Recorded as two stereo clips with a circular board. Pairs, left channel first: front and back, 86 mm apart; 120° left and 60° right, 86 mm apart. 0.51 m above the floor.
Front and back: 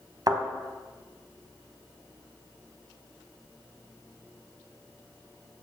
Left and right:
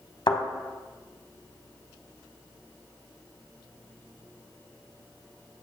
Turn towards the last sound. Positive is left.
turn(degrees=140)